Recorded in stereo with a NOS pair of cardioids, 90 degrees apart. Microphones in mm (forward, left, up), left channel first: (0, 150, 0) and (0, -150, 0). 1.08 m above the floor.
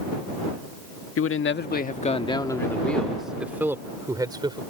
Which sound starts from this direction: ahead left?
A man speaking, at 1.2 s.